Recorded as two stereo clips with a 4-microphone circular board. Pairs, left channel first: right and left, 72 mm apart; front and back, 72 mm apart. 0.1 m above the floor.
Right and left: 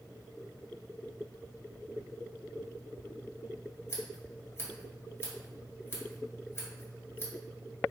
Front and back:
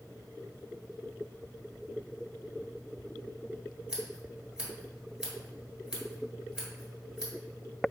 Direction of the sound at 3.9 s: 105° right.